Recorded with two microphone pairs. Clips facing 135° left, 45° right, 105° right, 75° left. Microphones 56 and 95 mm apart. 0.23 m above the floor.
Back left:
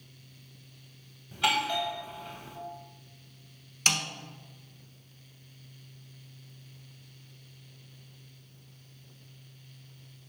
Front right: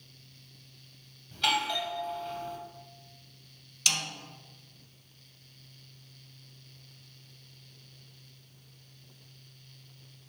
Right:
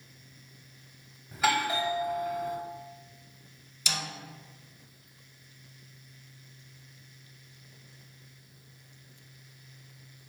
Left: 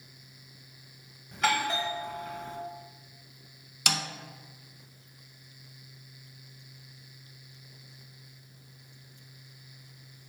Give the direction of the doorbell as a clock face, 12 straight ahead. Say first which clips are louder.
Back left 1 dB, right 1 dB; 6 o'clock.